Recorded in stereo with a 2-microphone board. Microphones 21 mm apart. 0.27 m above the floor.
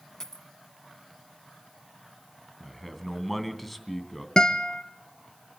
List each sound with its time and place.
0.2 s a dropped coin: 30° left (ahead or behind), 1.3 m
2.6 s a man speaking: 5° left (ahead or behind), 2.5 m
4.4 s a guitar: 35° left (ahead or behind), 1.0 m